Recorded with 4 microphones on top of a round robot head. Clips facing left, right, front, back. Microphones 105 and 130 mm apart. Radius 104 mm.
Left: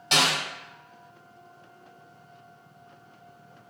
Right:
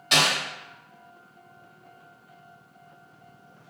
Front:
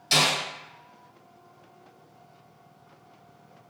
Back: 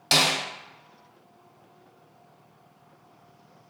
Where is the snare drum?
160° left, 1.2 m.